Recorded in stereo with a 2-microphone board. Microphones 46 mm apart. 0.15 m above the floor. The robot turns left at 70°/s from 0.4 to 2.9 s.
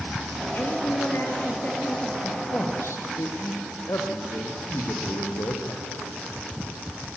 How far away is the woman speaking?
About 3 m.